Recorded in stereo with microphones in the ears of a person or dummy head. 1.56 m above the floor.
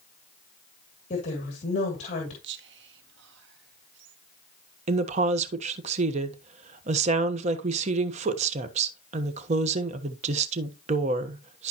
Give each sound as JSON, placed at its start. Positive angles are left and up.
{"t": 1.1, "sound": "a woman speaking", "side_deg": 45, "distance_m": 2.5}
{"t": 2.4, "sound": "whispering", "side_deg": -70, "distance_m": 1.2}
{"t": 4.9, "sound": "a woman speaking", "side_deg": -40, "distance_m": 1.3}